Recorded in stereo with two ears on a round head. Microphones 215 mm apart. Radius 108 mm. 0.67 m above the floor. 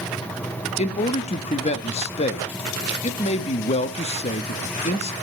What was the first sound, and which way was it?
A man speaking, 25° left (ahead or behind).